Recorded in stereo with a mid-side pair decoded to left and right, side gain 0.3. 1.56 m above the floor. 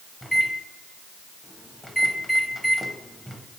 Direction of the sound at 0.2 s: 10° left.